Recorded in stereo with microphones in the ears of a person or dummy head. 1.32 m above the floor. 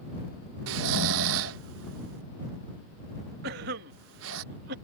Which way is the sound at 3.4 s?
60° right (ahead or behind).